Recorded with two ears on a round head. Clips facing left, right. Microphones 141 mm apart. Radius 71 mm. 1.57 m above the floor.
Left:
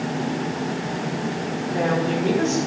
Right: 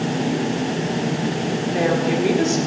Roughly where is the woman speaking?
Centre.